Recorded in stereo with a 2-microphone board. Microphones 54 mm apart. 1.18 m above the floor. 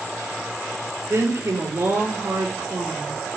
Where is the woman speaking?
85° right, 4.5 m.